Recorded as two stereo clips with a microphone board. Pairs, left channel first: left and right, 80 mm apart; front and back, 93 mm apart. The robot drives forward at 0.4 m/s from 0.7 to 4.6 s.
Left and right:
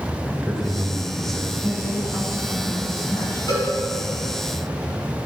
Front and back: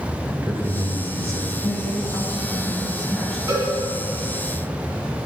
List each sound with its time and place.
0.2 s a man speaking: 170° left, 0.9 m; by 1.5 s 175° left, 1.1 m
1.6 s a woman speaking: 55° left, 1.9 m; by 3.4 s 90° left, 1.8 m
3.5 s a cowbell: 125° left, 2.0 m